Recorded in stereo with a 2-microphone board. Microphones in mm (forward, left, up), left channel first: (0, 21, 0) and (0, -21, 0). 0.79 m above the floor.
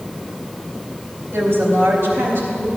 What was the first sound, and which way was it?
A woman speaking, 65° right (ahead or behind).